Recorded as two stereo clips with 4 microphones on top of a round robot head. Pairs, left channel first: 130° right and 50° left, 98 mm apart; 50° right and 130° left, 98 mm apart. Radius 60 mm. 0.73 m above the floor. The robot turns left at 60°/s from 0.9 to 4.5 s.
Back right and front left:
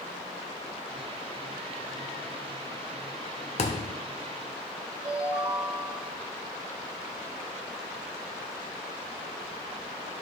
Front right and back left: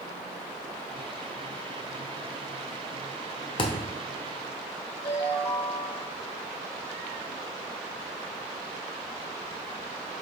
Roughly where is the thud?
Right.